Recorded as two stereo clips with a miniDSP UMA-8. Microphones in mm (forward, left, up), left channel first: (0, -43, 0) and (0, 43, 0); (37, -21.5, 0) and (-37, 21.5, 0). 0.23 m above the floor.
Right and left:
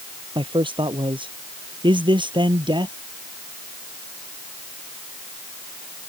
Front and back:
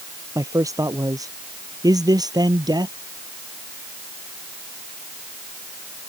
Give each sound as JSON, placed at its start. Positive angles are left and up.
{"t": 0.3, "sound": "a man speaking", "azimuth_deg": 100}